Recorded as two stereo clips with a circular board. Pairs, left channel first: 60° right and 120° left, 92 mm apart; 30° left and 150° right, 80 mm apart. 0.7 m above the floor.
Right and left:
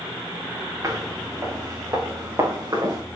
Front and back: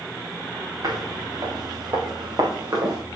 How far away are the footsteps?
About 5.5 m.